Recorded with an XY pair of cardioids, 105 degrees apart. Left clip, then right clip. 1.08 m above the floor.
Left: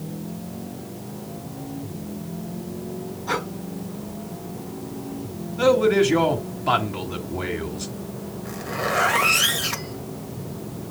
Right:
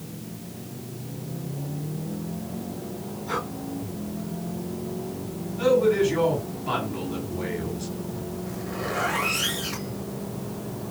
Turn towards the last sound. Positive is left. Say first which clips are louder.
# left 7 dB
turn(degrees=65)